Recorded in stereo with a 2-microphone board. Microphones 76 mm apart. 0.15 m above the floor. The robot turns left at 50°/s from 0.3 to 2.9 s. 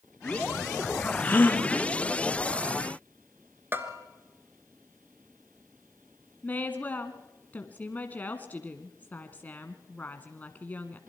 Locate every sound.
1.2 s a gasp: 20° left (ahead or behind), 1.7 m; by 1.6 s 30° left (ahead or behind), 1.7 m
3.7 s a bell: 30° right (ahead or behind), 1.7 m
6.4 s a woman speaking: 25° left (ahead or behind), 1.1 m